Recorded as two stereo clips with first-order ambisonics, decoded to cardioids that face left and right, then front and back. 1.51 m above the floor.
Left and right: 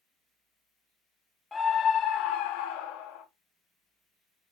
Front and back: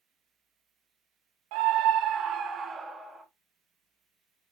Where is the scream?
165° left, 0.6 m; by 3.2 s 95° left, 1.1 m.